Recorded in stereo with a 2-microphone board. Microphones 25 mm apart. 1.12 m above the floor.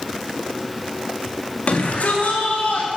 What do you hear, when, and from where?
1.7 s a shout: 60° left (ahead or behind), 1.8 m; by 3.0 s 80° left, 3 m